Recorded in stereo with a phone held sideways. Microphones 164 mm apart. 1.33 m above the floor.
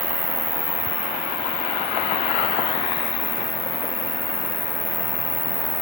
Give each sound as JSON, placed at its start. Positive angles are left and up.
{"t": 0.0, "sound": "an insect", "side_deg": -70}